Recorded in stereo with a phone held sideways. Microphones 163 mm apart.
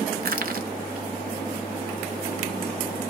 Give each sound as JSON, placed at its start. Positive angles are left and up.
{"t": 0.2, "sound": "crushing", "side_deg": -60, "distance_m": 0.7}